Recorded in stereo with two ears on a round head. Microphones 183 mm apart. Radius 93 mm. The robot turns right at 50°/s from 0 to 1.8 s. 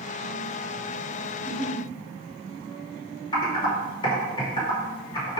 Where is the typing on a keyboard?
25° left (ahead or behind), 3 m.